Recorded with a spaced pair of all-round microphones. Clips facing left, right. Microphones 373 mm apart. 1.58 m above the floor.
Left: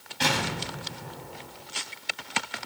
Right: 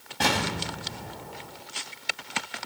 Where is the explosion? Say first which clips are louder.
Right 2 dB; 65° right (ahead or behind), 5.5 m.